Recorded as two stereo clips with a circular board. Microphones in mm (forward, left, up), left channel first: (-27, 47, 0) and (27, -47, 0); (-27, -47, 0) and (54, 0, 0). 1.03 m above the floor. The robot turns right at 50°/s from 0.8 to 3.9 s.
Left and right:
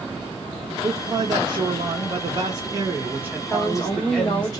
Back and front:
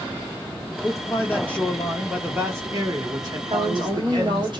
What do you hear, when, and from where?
0.8 s a man speaking: 110° right, 0.9 m; by 4.5 s 45° left, 0.9 m
3.5 s a woman speaking: 45° left, 1.4 m; by 4.6 s 65° left, 1.4 m